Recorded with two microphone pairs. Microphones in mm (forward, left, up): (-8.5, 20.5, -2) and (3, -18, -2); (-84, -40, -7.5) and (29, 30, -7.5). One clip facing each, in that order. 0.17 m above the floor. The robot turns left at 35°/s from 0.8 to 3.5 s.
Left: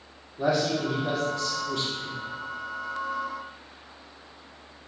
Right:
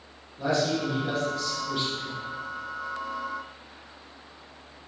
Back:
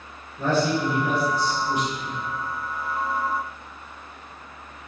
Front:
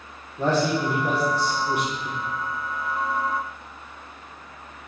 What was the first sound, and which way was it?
A man speaking, 35° left.